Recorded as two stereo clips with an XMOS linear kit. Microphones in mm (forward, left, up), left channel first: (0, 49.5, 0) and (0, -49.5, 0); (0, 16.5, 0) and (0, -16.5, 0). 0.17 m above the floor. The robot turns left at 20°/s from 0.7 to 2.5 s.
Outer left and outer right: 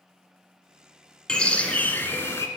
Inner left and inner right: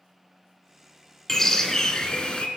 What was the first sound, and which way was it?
A bird, 10° left (ahead or behind).